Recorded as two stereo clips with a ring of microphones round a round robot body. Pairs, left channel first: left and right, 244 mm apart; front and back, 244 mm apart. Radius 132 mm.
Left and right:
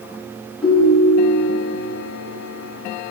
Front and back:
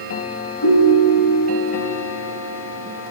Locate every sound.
0.6 s a ringtone: 5° left, 3 m